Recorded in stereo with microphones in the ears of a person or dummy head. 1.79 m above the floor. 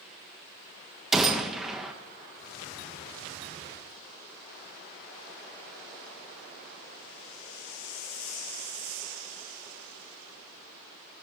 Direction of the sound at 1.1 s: 5° right (ahead or behind).